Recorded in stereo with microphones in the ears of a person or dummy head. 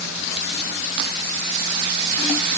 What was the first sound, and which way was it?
Only background noise.